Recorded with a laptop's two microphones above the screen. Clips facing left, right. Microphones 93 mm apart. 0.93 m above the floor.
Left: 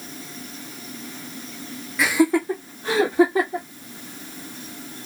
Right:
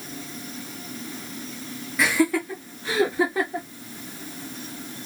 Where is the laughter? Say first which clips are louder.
Left 3 dB; centre (ahead or behind), 0.6 m; by 3.7 s 70° left (ahead or behind), 1.5 m.